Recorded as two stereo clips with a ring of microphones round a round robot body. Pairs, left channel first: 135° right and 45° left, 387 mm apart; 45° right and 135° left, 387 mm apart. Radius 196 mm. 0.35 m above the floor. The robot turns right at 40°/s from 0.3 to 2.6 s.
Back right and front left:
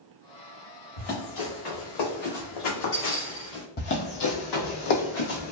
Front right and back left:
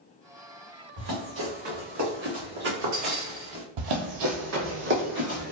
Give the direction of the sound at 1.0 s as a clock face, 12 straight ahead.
6 o'clock.